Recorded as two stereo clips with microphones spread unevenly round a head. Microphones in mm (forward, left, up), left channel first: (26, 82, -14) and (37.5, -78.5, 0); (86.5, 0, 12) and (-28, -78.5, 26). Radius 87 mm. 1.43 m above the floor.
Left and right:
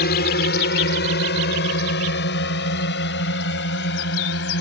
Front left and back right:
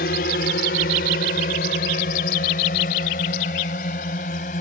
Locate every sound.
0.0 s a drone: 70° left; by 4.6 s 85° left